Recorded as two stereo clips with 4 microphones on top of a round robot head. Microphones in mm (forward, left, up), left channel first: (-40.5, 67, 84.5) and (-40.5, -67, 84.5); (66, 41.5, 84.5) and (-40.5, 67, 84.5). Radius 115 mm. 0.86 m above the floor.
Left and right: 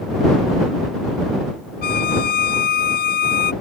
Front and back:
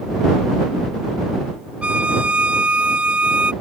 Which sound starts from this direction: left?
A violin, at 1.8 s.